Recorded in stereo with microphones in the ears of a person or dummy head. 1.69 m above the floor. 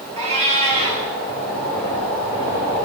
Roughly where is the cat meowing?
Right.